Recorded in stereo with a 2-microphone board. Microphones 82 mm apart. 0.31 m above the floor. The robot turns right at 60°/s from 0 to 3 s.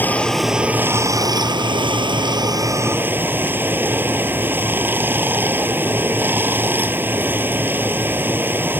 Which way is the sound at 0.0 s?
155° left.